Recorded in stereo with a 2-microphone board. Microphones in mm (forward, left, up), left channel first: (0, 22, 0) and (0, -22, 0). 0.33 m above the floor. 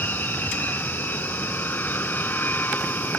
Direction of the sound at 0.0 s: 45° left (ahead or behind).